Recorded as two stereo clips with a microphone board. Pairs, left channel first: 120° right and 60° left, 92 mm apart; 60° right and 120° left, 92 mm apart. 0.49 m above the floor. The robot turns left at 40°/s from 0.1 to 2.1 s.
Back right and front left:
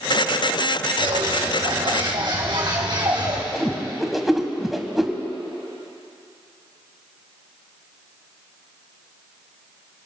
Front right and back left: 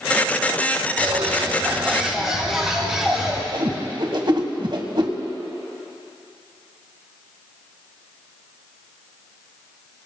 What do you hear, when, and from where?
1.0 s a bird: 80° left, 3.5 m; by 3.4 s 35° left, 3.5 m
3.5 s a whoosh: 150° left, 1.4 m